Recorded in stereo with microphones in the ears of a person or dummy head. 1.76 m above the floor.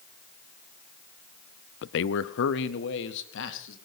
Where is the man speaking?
65° left (ahead or behind), 0.5 m; by 3.8 s 70° left (ahead or behind), 3 m.